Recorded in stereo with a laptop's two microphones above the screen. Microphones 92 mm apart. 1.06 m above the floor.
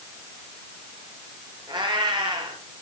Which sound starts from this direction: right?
A cat meowing, at 1.7 s.